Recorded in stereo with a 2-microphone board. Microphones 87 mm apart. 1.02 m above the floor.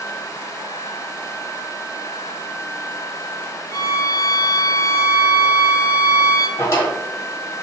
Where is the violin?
40° left (ahead or behind), 0.5 m.